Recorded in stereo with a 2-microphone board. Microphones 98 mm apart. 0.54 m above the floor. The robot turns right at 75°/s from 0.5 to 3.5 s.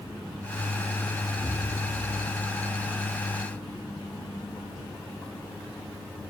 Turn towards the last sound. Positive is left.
turn(degrees=-20)